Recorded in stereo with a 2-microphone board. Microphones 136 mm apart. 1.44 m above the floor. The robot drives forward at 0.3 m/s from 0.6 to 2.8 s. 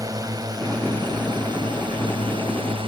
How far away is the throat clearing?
No throat clearing in this recording.